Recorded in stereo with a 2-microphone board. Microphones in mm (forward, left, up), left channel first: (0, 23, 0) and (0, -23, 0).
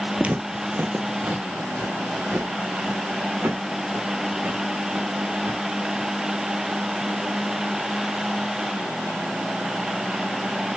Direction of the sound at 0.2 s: 25° right (ahead or behind).